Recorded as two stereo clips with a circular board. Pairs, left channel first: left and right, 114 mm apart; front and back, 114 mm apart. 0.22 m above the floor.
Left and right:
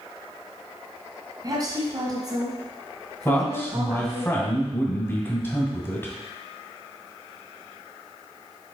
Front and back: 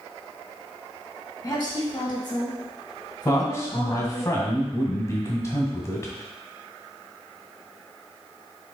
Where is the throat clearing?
No throat clearing in this recording.